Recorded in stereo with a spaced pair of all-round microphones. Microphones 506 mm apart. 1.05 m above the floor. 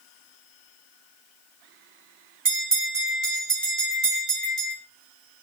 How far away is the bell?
About 2.0 m.